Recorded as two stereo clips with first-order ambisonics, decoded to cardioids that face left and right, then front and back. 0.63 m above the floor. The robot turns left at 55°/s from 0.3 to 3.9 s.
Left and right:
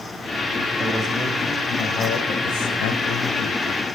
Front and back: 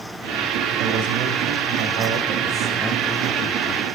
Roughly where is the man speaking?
Behind right.